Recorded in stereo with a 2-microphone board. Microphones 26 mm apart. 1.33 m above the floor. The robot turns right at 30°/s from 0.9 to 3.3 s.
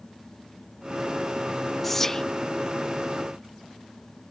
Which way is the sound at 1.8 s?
10° left (ahead or behind).